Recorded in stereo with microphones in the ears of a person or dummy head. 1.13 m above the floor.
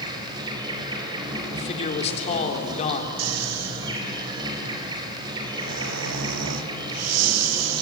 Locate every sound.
0.0 s an insect: 25° right (ahead or behind), 4.5 m
1.5 s a man speaking: 35° left (ahead or behind), 3 m
3.2 s snoring: 80° right, 1.0 m